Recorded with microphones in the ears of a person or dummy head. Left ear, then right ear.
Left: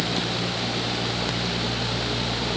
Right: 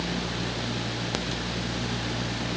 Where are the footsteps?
I don't hear footsteps.